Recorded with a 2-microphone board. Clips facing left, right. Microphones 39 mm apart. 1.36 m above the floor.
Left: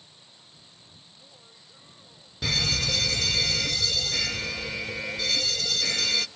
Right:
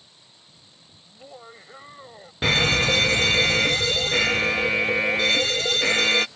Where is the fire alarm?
45° right (ahead or behind).